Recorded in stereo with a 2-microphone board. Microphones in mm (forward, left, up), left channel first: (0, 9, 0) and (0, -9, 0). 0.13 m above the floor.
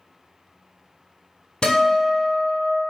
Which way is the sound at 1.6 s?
55° left (ahead or behind).